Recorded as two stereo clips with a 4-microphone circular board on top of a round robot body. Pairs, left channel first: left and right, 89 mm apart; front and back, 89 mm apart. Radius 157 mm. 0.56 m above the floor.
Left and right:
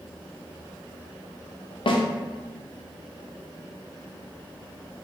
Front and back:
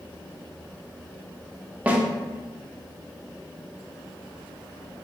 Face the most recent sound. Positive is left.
turn(degrees=105)